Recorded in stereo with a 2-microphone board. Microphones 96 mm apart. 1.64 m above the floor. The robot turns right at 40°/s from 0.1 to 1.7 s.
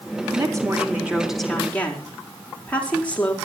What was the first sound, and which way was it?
A woman speaking, 45° right.